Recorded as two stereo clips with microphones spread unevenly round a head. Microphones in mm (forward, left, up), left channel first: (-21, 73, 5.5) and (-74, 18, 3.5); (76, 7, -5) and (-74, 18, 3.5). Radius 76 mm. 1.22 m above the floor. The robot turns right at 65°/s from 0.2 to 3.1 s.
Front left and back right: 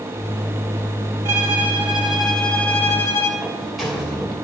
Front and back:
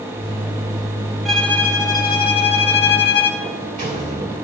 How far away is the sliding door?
About 3 m.